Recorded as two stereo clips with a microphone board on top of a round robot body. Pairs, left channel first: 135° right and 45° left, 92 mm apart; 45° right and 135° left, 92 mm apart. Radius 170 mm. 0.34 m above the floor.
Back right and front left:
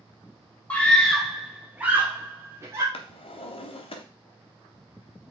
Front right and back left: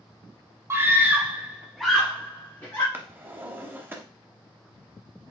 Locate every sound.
0.7 s a scream: 165° left, 1.6 m; by 2.8 s 10° left, 1.9 m
2.9 s a drawer: 155° right, 0.6 m